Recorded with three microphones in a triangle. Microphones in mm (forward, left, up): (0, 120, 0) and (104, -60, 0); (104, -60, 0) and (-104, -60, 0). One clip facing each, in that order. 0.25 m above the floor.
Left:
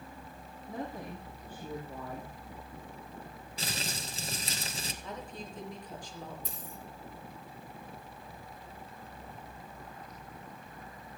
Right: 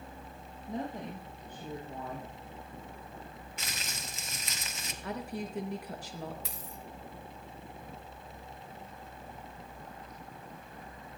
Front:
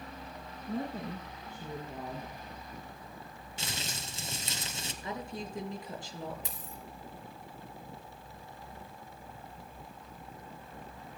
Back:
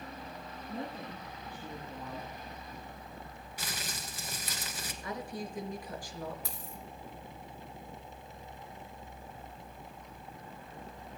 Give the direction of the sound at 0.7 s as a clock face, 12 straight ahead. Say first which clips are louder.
Right 2 dB, front 5 dB; 12 o'clock.